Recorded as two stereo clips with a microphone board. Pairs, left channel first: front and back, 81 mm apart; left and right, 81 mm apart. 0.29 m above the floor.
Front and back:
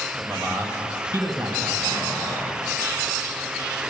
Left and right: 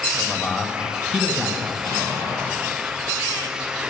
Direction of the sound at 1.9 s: 145° right.